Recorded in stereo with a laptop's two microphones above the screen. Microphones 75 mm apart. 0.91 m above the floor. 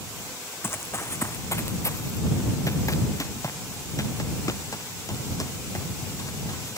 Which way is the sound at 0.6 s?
35° left (ahead or behind).